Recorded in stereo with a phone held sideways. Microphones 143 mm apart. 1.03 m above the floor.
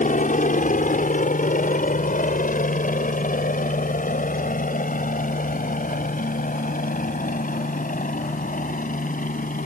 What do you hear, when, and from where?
0.0 s a helicopter: 65° left (ahead or behind); by 9.7 s 70° left (ahead or behind)